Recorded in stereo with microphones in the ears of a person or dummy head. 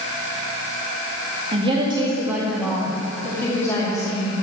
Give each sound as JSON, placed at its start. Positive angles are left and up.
{"t": 1.5, "sound": "a woman speaking", "side_deg": -35, "distance_m": 1.7}